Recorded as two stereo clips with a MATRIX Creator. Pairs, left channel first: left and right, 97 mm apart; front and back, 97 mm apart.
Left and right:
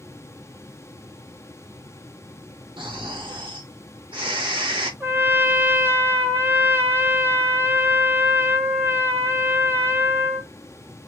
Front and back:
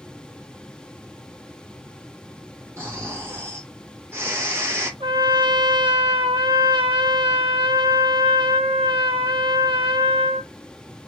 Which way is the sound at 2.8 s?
115° right.